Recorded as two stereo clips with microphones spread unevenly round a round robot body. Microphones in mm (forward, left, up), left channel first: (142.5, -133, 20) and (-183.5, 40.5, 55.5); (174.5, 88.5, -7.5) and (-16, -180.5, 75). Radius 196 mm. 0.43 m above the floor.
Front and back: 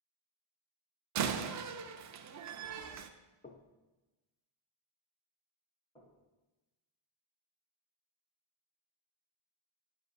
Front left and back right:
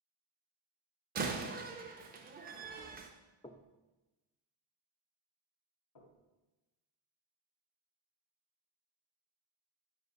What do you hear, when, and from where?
1.1 s a door slam: 165° left, 0.8 m
3.4 s knocking: 15° left, 0.8 m
6.0 s knocking: 45° left, 2 m